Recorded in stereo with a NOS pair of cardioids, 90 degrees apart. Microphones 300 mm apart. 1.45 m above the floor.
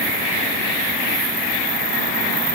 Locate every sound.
Only background noise.